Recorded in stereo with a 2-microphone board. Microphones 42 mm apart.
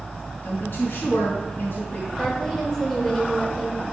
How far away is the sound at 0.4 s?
About 3 m.